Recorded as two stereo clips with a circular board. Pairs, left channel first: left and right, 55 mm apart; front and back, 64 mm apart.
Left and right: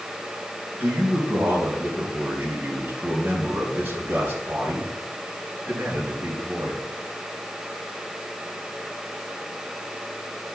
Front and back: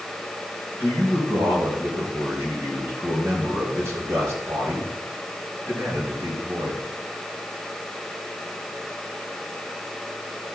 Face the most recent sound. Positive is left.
turn(degrees=-155)